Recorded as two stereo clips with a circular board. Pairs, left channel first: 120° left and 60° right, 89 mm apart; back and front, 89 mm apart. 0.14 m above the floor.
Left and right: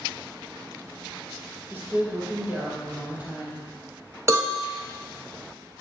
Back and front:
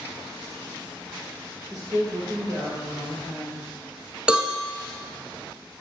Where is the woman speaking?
5° right, 2.5 m; by 3.6 s 10° left, 4 m.